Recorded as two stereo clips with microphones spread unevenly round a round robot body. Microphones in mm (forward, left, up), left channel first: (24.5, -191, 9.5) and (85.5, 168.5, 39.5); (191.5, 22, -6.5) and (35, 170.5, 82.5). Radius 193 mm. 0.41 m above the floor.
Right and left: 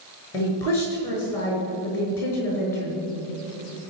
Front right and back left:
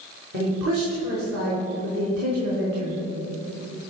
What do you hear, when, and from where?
0.3 s a woman speaking: 175° left, 5.5 m